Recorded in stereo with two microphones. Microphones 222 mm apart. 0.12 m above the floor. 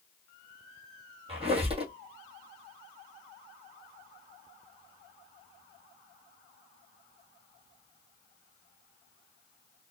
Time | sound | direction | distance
1.3 | a squeak | 25° right (ahead or behind) | 1.3 m